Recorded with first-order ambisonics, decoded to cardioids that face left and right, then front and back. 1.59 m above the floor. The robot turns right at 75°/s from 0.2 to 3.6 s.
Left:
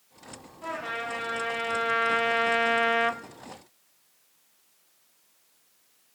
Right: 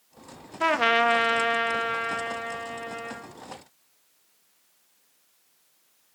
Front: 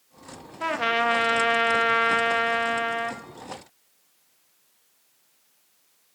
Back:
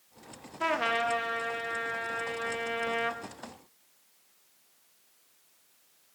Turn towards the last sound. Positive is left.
turn(degrees=130)